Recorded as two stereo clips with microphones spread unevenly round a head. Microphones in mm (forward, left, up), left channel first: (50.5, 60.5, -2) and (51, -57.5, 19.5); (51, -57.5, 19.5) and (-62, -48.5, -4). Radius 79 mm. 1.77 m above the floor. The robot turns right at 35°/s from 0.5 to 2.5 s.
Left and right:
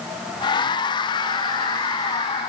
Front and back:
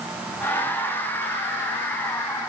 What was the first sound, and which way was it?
Only background noise.